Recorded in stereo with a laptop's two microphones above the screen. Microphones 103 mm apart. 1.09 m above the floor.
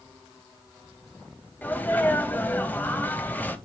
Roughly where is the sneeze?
Centre.